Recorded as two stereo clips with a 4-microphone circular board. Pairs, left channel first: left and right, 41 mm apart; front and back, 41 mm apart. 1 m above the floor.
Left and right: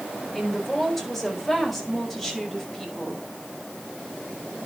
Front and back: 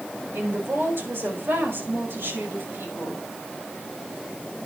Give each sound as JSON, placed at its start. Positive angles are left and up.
{"t": 0.3, "sound": "a woman speaking", "azimuth_deg": 175, "distance_m": 4.5}